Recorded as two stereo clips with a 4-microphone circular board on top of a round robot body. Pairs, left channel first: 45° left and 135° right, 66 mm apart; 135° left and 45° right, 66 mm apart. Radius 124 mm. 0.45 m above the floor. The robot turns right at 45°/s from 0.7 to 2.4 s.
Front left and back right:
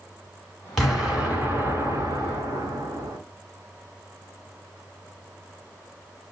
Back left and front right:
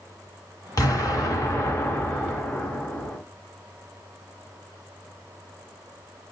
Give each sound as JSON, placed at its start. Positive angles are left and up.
{"t": 0.8, "sound": "an explosion", "azimuth_deg": 135, "distance_m": 2.0}